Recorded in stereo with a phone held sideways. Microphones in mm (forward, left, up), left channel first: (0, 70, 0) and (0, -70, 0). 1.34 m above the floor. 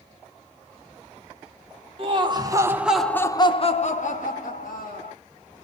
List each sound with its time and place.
2.0 s laughter: 40° right (ahead or behind), 0.9 m; by 5.1 s 80° left, 1.3 m